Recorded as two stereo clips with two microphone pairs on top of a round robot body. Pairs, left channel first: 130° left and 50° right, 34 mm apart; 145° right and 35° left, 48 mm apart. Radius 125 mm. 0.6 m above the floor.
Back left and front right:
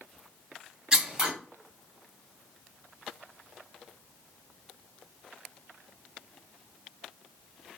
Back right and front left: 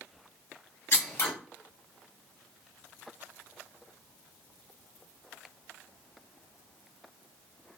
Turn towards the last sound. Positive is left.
turn(degrees=-115)